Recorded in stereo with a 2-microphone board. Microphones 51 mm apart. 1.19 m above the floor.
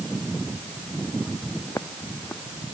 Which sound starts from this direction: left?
Footsteps, at 1.7 s.